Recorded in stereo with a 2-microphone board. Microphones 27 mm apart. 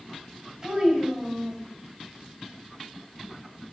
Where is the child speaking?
25° right (ahead or behind), 2.5 m.